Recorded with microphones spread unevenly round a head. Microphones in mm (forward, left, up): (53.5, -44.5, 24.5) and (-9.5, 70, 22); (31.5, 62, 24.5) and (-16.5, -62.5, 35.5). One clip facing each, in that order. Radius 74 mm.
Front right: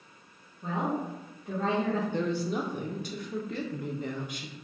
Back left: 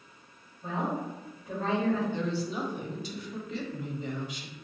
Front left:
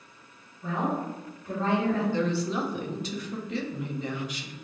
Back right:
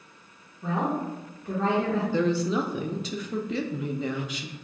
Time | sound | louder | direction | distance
0.6 | a woman speaking | front right 1 dB, back right 2 dB | 105° right | 1.6 m
2.1 | a woman speaking | front right 2 dB, back right 3 dB | 110° right | 0.7 m